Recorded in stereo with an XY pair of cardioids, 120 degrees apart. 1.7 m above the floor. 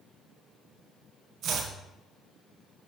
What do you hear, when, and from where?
1.4 s chopping: 65° right, 1.4 m